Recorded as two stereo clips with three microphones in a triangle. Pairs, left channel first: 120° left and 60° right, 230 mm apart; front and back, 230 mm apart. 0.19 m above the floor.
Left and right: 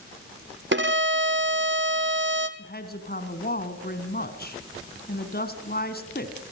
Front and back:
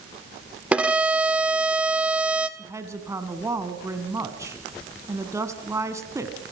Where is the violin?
95° right, 1.4 m.